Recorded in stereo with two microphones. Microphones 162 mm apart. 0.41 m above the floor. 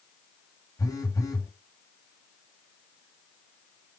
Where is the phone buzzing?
20° left (ahead or behind), 1.3 m.